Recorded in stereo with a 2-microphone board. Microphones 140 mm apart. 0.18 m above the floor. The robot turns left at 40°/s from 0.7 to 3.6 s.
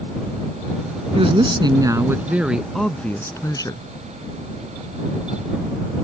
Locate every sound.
1.1 s a woman speaking: 120° right; by 3.8 s 145° left